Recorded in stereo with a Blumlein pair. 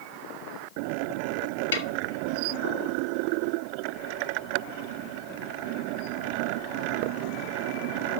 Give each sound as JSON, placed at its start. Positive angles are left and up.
{"t": 1.7, "sound": "a snare drum", "azimuth_deg": 65, "distance_m": 1.4}